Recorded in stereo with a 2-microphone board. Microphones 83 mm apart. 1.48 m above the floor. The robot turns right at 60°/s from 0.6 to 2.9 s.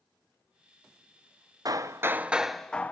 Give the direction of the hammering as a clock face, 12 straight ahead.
2 o'clock.